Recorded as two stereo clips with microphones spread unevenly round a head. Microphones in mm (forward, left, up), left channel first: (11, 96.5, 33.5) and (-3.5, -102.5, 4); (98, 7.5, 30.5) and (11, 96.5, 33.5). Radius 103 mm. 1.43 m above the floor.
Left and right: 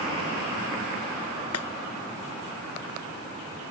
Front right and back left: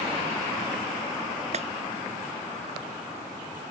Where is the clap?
105° left.